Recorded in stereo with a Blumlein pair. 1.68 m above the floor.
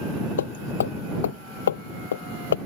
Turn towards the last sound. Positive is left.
turn(degrees=65)